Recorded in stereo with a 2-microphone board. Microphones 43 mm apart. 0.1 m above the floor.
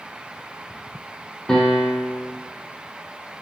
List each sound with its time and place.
1.5 s a piano: 15° left (ahead or behind), 3 m